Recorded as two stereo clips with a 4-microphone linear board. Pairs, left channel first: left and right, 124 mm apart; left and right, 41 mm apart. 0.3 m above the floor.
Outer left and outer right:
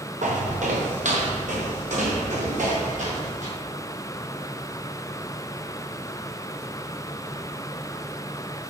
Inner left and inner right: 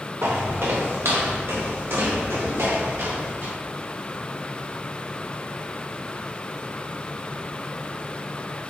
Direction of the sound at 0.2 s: 85° right.